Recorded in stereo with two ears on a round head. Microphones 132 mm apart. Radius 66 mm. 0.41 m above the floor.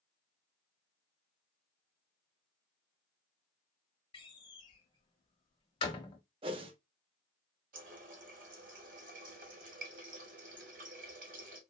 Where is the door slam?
30° left (ahead or behind), 0.6 m.